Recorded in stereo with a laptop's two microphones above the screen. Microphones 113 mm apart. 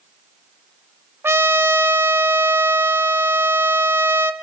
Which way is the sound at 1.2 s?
20° right (ahead or behind).